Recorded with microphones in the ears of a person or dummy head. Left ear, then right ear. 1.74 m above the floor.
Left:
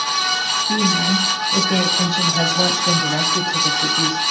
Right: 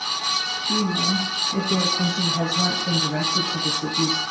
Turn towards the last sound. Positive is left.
turn(degrees=20)  # may be behind; listen again after turning